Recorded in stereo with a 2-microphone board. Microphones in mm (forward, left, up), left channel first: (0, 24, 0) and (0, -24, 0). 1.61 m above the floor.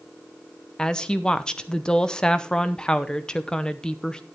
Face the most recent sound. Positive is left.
turn(degrees=15)  # may be behind; listen again after turning